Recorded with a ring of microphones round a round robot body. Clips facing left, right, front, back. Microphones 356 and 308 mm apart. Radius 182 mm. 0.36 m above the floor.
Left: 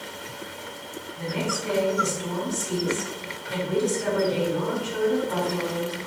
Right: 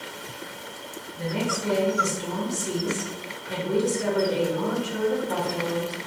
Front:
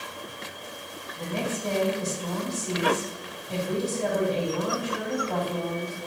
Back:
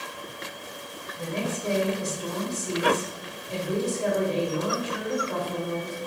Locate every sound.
1.1 s a woman speaking: 100° right, 1.3 m